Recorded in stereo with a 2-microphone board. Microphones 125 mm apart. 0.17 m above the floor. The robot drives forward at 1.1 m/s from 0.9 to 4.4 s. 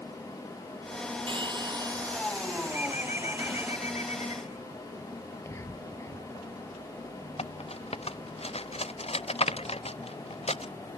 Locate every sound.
1.3 s a hair dryer: 40° right (ahead or behind); by 3.7 s 15° right (ahead or behind)
2.7 s a bird: 70° left (ahead or behind); by 4.6 s 55° left (ahead or behind)
5.4 s whispering: 20° left (ahead or behind)
7.4 s cutlery clinking: 50° left (ahead or behind)